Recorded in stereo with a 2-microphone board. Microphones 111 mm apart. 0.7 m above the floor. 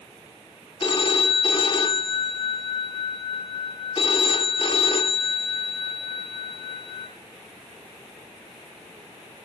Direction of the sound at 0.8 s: 45° left (ahead or behind).